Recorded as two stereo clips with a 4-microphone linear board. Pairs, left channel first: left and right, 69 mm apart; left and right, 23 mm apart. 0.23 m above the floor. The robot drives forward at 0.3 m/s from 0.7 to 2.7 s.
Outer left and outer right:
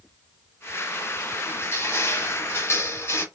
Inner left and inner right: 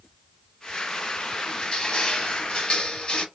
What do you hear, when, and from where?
1.5 s crushing: 35° left (ahead or behind), 0.8 m; by 3.2 s 40° left (ahead or behind), 0.8 m